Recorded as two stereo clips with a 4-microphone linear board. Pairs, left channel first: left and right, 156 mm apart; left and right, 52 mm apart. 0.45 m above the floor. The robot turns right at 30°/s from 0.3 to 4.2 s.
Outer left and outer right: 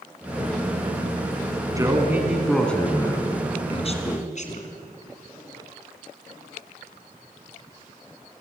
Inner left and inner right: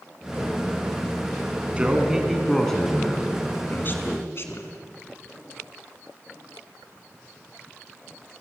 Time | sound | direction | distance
1.8 | a man speaking | 20° right | 4 m